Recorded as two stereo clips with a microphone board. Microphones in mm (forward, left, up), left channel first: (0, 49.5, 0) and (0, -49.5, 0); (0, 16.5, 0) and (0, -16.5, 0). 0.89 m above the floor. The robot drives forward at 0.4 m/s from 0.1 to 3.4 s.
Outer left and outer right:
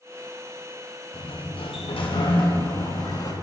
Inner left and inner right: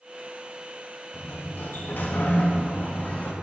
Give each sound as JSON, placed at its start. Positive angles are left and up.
{"t": 1.1, "sound": "a sliding door", "side_deg": 65, "distance_m": 0.9}